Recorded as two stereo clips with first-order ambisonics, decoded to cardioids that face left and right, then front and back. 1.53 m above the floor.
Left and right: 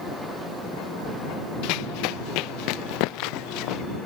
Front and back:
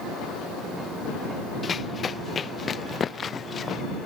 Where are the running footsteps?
70° left; by 3.8 s 65° left.